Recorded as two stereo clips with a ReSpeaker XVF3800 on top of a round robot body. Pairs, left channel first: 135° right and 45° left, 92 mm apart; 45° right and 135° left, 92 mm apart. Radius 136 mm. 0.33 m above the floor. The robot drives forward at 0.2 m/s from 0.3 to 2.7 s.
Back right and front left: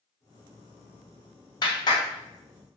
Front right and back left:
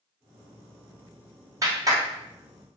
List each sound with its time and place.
1.6 s a clap: 175° right, 2.5 m